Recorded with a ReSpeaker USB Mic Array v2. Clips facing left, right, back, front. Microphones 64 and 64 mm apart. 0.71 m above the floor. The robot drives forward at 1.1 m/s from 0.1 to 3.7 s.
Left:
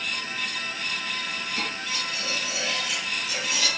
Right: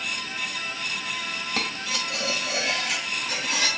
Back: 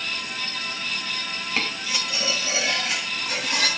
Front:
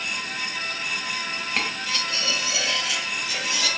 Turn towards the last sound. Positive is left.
turn(degrees=-145)